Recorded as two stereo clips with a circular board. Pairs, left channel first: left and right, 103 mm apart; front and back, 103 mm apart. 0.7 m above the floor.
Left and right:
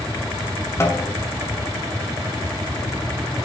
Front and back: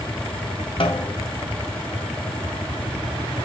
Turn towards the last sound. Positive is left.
turn(degrees=25)